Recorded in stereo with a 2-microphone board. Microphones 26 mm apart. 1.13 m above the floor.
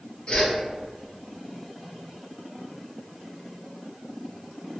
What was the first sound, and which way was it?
A whoosh, 40° left (ahead or behind).